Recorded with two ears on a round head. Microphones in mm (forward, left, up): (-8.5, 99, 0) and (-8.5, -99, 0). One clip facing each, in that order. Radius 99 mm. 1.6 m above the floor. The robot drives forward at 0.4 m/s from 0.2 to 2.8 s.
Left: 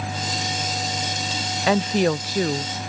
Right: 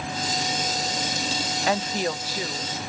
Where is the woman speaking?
60° left (ahead or behind); by 2.7 s 40° left (ahead or behind).